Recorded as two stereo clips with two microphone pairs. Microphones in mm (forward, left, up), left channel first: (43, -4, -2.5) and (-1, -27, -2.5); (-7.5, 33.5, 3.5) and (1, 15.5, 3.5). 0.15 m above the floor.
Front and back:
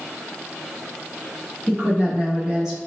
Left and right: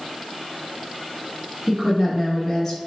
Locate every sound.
1.7 s a woman speaking: 100° right, 1.6 m; by 2.8 s 135° left, 1.2 m